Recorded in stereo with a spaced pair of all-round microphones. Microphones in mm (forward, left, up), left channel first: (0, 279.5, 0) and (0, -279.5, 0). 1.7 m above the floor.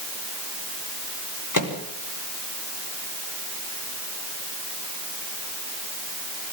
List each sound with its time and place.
1.5 s a microwave: 35° left (ahead or behind), 3.5 m